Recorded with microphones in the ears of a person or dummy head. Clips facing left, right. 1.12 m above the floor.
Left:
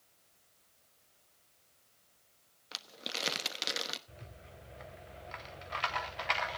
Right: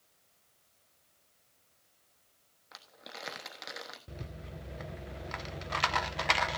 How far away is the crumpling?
About 1.2 m.